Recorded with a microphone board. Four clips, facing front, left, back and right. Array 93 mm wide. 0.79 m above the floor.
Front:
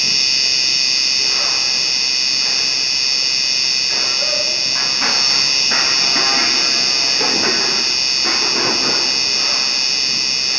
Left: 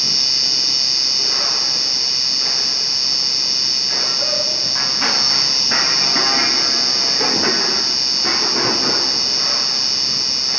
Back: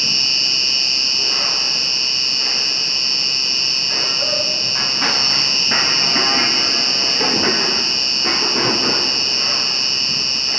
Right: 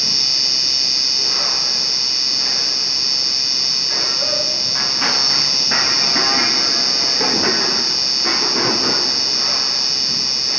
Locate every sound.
0.0 s an insect: straight ahead